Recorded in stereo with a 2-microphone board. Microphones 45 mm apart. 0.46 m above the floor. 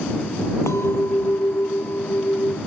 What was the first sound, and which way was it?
A clink, 85° left.